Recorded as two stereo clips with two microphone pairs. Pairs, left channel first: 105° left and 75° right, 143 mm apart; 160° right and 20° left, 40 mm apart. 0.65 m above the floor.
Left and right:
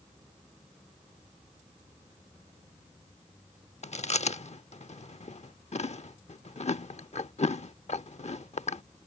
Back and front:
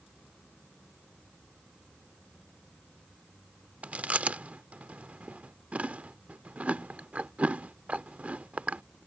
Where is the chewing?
70° left.